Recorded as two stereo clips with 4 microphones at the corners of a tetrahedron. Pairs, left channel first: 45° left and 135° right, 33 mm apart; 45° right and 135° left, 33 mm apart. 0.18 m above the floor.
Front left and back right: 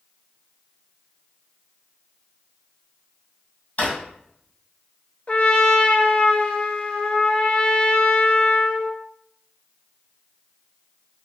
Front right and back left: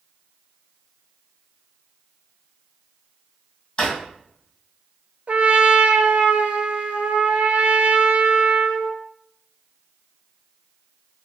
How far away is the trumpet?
About 0.6 m.